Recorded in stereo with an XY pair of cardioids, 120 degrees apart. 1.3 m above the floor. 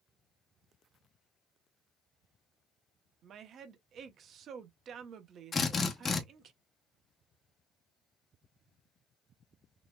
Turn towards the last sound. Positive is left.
turn(degrees=30)